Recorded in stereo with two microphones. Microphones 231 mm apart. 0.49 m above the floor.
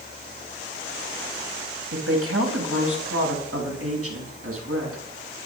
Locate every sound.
1.9 s a woman speaking: 70° right (ahead or behind), 3.5 m; by 5.0 s 75° right (ahead or behind), 5.5 m